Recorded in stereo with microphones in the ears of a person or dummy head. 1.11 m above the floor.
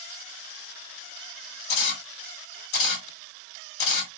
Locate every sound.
1.7 s a camera shutter: 55° left (ahead or behind), 2.5 m